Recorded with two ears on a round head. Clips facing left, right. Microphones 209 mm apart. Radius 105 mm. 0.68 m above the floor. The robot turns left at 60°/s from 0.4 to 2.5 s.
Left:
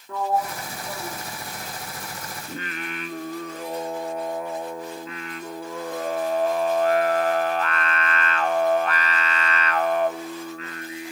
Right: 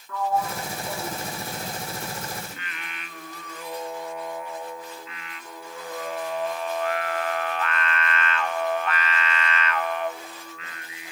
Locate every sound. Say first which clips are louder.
0.1 s a sliding door: left 1 dB; 25° left (ahead or behind), 1.3 m; by 2.1 s 45° right (ahead or behind), 1.3 m
2.5 s singing: left 9 dB; 35° left (ahead or behind), 1.0 m